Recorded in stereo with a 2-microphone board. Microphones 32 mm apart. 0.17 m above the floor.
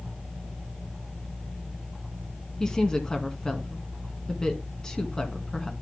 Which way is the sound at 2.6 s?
20° left (ahead or behind).